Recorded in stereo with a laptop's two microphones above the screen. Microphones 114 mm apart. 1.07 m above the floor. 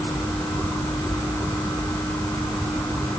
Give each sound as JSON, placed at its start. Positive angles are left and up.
{"t": 0.0, "sound": "a fan", "side_deg": 20, "distance_m": 2.5}